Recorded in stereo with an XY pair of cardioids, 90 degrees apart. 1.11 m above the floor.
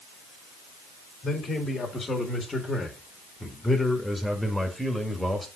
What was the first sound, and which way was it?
A man speaking, 45° left.